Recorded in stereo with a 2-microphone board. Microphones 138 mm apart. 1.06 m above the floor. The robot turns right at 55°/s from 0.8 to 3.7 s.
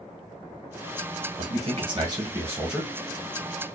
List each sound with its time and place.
1.4 s a man speaking: 85° right, 0.9 m; by 2.9 s straight ahead, 0.9 m